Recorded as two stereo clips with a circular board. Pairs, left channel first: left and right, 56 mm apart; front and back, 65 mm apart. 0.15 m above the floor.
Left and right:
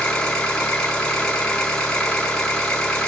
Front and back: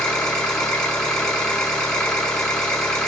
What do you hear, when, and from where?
0.0 s an engine running: 50° left, 1.1 m